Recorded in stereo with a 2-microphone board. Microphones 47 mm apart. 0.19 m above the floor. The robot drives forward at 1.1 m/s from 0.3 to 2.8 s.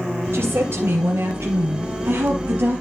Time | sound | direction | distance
0.3 | a woman speaking | 60° right (ahead or behind) | 3.5 m